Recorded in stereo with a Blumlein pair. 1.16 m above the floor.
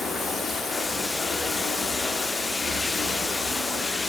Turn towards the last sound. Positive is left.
turn(degrees=10)